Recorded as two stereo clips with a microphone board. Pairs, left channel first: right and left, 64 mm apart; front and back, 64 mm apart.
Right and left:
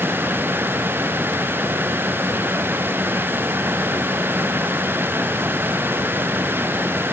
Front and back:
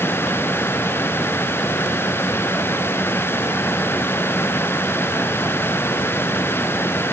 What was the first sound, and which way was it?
Only background noise.